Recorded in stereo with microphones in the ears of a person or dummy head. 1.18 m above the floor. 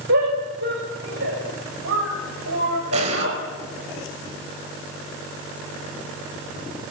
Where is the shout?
60° right (ahead or behind), 6.5 m; by 3.4 s 75° right (ahead or behind), 7.5 m.